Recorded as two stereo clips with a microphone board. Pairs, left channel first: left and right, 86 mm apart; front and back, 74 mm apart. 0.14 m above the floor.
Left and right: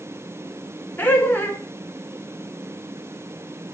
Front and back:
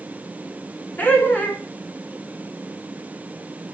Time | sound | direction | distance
1.0 | laughter | 40° left | 1.3 m